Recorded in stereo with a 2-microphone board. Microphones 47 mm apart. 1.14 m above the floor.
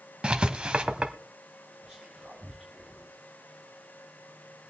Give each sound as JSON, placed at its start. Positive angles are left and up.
{"t": 0.2, "sound": "writing", "side_deg": -20, "distance_m": 1.1}
{"t": 1.8, "sound": "whispering", "side_deg": -10, "distance_m": 2.0}